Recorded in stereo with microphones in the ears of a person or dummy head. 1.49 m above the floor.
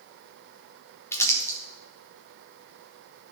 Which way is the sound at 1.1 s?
20° left (ahead or behind).